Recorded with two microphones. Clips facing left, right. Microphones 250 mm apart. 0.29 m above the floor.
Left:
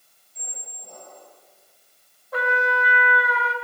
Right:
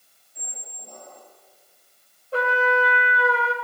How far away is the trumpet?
About 1.5 m.